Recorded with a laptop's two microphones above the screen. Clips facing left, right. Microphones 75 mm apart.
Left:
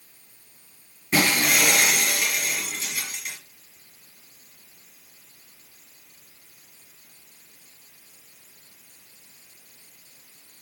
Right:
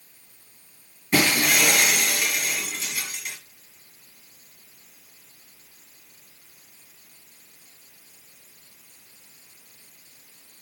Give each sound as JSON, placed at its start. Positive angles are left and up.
{"t": 1.1, "sound": "breaking glass", "side_deg": 0, "distance_m": 4.5}